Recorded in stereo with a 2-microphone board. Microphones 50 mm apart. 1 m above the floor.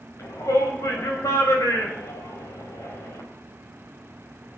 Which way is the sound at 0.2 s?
80° left.